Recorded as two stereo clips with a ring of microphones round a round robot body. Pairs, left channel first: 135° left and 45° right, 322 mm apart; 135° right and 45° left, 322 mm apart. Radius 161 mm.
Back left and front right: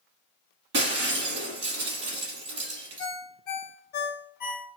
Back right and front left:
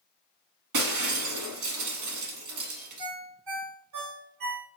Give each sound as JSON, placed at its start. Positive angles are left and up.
{"t": 0.7, "sound": "breaking glass", "azimuth_deg": 10, "distance_m": 1.1}
{"t": 3.0, "sound": "a ringtone", "azimuth_deg": 75, "distance_m": 1.6}